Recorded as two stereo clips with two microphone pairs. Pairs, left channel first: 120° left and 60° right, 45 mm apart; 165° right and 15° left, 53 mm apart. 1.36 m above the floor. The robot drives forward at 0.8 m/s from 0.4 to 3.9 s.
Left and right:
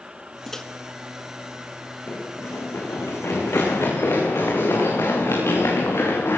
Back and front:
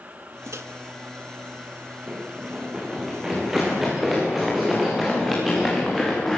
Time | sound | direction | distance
0.5 | a microwave | 40° left | 1.7 m
2.1 | running footsteps | 80° left | 6.5 m